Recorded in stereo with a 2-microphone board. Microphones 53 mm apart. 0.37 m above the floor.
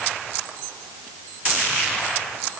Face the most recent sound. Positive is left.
No sound to turn to.